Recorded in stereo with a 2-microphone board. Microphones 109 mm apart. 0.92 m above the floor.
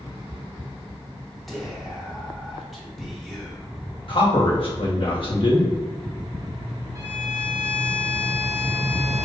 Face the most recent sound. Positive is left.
turn(degrees=-35)  # may be behind; listen again after turning